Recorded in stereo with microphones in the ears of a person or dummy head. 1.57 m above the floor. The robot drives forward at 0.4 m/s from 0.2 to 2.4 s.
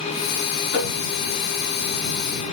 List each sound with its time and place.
0.7 s tapping: 60° left (ahead or behind), 5.5 m